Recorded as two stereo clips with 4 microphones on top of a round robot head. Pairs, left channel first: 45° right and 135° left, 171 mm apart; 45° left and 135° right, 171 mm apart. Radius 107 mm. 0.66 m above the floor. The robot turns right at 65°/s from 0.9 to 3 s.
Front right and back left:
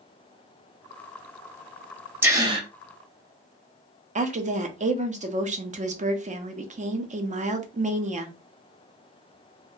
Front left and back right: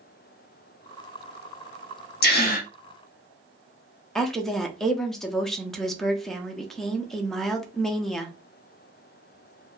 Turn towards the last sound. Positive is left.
turn(degrees=130)